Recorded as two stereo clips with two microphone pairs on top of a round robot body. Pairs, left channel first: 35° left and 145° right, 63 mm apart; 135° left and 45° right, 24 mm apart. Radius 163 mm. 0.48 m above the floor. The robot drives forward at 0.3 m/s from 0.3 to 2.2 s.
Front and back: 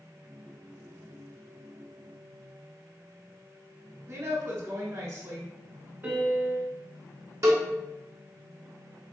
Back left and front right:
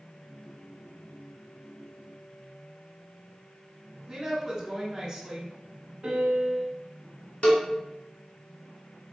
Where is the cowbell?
Straight behind, 1.4 m.